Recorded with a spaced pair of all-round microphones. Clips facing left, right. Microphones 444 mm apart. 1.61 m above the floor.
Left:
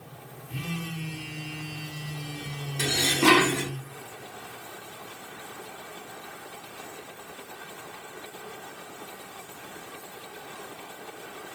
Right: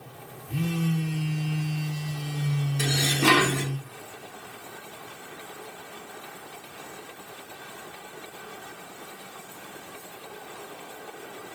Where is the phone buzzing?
60° right (ahead or behind), 0.6 m.